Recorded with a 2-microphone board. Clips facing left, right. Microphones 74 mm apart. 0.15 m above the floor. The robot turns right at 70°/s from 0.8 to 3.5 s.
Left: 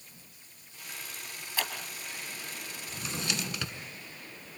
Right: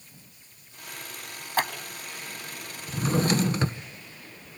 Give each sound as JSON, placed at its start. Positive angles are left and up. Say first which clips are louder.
{"t": 1.6, "sound": "scissors", "louder": "right 9 dB", "side_deg": -50, "distance_m": 2.5}
{"t": 2.9, "sound": "a drawer", "louder": "right 13 dB", "azimuth_deg": -105, "distance_m": 0.7}